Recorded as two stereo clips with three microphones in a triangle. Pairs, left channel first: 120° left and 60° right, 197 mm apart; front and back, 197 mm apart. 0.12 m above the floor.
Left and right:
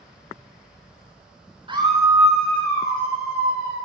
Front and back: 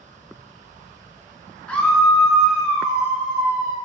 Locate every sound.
1.7 s a scream: 80° right, 1.7 m; by 3.8 s 100° left, 2 m